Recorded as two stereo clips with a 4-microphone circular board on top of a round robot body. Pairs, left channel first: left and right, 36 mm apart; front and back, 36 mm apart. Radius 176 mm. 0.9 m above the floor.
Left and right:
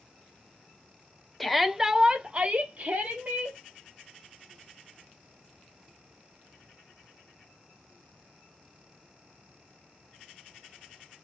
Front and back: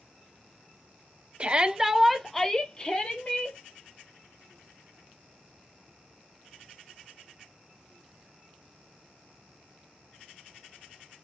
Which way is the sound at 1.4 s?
175° left.